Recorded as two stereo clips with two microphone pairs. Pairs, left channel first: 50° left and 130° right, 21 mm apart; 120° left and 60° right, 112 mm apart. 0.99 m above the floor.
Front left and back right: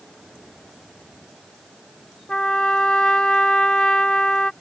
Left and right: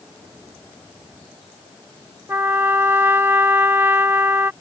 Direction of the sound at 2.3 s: 10° left.